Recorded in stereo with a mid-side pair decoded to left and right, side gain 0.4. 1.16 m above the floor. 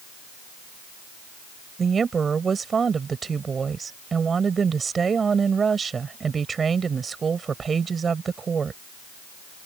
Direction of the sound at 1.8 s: 45° right.